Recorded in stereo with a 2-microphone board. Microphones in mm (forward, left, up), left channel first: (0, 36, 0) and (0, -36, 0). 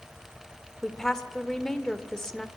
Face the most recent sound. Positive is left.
turn(degrees=10)  # may be behind; listen again after turning